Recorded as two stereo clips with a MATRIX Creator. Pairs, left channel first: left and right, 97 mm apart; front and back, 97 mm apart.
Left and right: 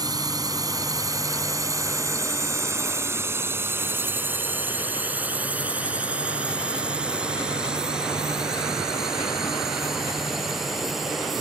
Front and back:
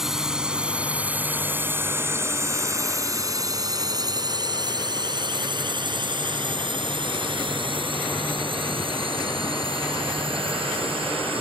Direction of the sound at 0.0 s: 95° right.